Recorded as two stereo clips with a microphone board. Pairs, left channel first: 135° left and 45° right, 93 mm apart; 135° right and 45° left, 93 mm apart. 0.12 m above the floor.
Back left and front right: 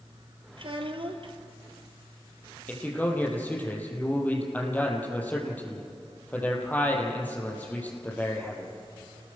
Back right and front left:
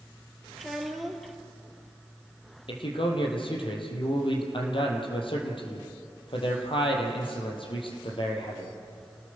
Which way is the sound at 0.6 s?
45° right.